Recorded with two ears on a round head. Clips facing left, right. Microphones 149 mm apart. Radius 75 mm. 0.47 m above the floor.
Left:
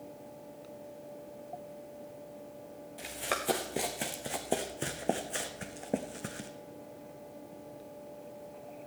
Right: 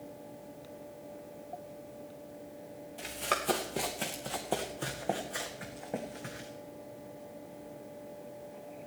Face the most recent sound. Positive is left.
turn(degrees=45)  # may be behind; listen again after turning